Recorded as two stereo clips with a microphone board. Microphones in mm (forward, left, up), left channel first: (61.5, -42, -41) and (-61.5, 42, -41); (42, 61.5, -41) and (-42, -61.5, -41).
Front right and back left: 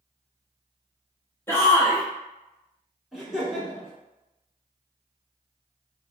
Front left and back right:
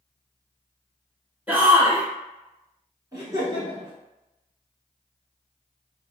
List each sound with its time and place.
1.5 s a shout: 70° right, 1.1 m
3.1 s laughter: 130° right, 1.0 m